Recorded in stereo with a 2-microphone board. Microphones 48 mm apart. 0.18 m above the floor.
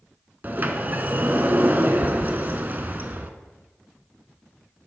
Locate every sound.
0.4 s a sliding door: 40° right (ahead or behind), 0.6 m